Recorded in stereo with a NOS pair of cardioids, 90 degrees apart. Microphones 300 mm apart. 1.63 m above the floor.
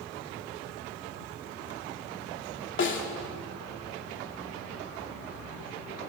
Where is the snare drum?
40° left, 3 m.